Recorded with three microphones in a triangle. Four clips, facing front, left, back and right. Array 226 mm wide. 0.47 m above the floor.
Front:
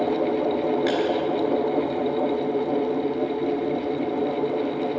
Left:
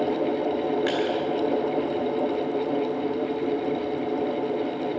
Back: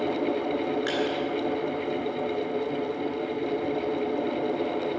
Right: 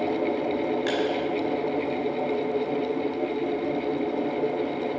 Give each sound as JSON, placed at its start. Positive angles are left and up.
{"t": 0.9, "sound": "crushing", "azimuth_deg": 85, "distance_m": 4.5}